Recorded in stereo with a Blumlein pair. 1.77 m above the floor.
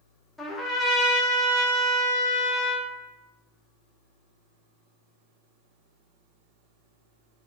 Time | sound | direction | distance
0.4 | a trumpet | 10° left | 0.6 m